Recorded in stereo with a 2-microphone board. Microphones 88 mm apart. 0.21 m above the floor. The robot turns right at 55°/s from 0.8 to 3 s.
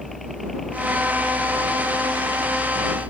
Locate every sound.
0.0 s a helicopter: straight behind; by 3.1 s 60° right